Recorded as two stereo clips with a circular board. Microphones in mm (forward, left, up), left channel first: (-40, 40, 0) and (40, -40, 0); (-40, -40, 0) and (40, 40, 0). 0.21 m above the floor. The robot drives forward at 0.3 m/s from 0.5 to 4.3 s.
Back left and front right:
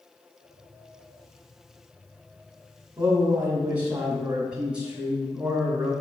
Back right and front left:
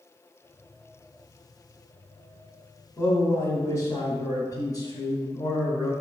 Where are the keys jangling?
I don't hear keys jangling.